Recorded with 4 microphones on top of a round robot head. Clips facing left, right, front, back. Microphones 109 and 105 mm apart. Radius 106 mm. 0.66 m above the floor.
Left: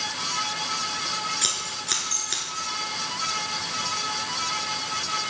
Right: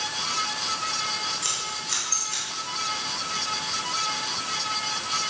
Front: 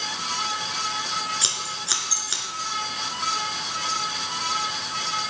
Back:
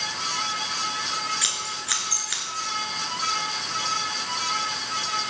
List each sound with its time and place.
1.4 s scissors: 60° left, 2 m